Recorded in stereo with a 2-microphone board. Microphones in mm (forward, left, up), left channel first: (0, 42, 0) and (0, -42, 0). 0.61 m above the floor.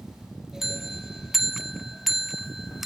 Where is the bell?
Centre (ahead or behind), 0.5 m.